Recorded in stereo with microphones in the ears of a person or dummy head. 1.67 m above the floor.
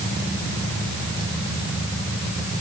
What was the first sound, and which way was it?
Only background noise.